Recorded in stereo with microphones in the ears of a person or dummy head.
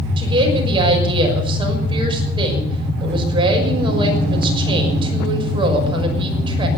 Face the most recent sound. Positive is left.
turn(degrees=-30)  # may be behind; listen again after turning